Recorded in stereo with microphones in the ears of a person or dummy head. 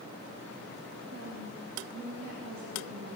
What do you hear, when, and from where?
1.1 s a woman speaking: 65° right (ahead or behind), 1.6 m